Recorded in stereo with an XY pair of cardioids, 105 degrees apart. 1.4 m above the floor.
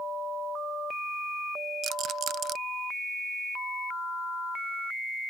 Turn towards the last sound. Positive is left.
turn(degrees=-70)